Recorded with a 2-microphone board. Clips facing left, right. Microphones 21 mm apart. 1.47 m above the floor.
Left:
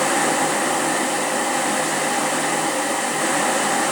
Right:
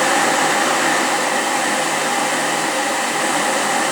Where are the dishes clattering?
I don't hear dishes clattering.